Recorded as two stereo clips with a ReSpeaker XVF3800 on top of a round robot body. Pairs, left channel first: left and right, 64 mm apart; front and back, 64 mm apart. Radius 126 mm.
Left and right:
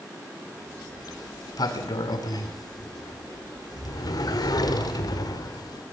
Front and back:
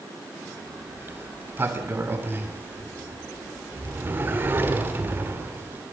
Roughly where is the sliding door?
Behind left.